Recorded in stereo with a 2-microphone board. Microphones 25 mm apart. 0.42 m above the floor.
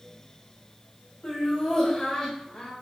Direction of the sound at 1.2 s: 30° left (ahead or behind).